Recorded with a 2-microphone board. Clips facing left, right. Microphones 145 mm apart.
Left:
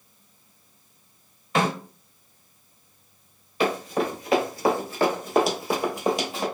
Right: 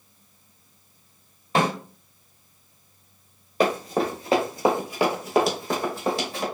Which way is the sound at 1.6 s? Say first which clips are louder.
Right 1 dB; 35° right (ahead or behind).